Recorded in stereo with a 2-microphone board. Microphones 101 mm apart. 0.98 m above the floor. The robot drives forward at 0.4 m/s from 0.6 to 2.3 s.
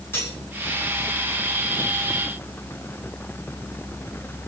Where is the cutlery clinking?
25° left (ahead or behind), 7 m.